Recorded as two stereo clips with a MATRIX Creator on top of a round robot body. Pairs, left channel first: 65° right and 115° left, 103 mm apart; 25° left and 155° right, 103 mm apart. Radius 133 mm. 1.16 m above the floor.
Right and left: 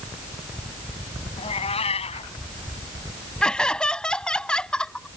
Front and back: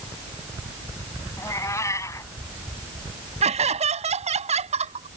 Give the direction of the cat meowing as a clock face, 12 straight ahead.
1 o'clock.